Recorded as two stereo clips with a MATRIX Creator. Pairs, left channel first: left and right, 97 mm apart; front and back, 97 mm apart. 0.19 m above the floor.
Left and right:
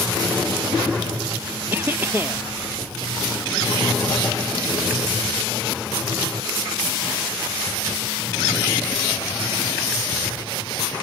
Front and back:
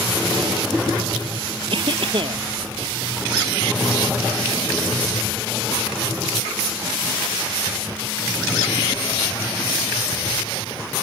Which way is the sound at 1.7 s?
155° right.